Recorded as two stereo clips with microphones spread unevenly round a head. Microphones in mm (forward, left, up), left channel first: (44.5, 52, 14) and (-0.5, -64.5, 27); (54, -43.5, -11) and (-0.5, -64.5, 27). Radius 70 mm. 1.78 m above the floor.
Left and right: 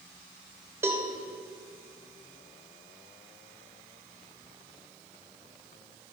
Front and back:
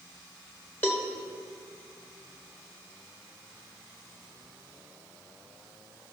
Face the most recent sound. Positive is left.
turn(degrees=-40)